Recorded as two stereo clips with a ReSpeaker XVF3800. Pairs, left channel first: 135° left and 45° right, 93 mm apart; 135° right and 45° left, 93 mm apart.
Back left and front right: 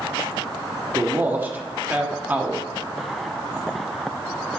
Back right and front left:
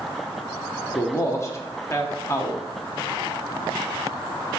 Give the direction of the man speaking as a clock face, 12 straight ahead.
3 o'clock.